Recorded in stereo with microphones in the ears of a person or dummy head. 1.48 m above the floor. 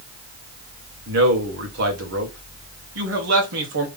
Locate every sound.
1.1 s a man speaking: 65° right (ahead or behind), 1.4 m